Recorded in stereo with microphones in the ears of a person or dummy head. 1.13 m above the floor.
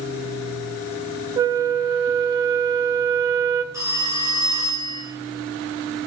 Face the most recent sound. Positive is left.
turn(degrees=-15)  # may be behind; listen again after turning